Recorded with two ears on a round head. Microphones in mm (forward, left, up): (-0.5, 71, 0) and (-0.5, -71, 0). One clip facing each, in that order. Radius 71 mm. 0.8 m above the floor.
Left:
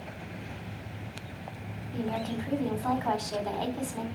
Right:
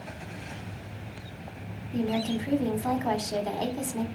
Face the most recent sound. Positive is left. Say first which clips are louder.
# right 4 dB
turn(degrees=-20)  # may be behind; listen again after turning